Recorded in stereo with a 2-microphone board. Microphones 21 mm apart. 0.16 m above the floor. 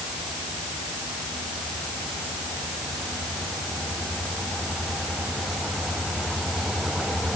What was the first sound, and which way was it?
Only background noise.